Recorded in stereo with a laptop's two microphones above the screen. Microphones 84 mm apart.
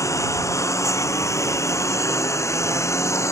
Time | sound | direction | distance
0.0 | a lawn mower | 40° left (ahead or behind) | ?